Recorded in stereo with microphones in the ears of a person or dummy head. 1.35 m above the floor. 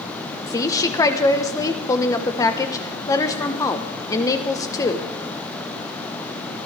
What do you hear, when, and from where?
0.5 s a woman speaking: 20° left (ahead or behind), 1.1 m